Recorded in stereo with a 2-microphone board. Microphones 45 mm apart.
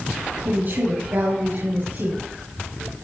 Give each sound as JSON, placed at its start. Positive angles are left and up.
{"t": 0.5, "sound": "a woman speaking", "side_deg": -50, "distance_m": 7.0}